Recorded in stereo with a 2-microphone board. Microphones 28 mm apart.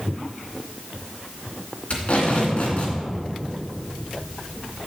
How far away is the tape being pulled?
About 2.5 m.